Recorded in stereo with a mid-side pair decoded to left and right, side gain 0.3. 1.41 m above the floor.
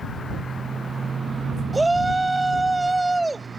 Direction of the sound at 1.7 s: 20° right.